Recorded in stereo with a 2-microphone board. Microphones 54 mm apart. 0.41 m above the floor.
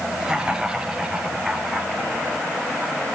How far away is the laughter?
About 6 m.